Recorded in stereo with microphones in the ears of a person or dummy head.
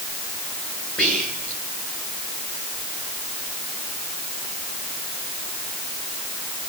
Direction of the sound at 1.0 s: 10° left (ahead or behind).